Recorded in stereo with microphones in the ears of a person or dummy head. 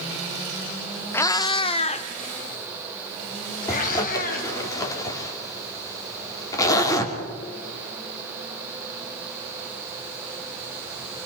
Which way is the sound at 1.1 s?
15° left (ahead or behind).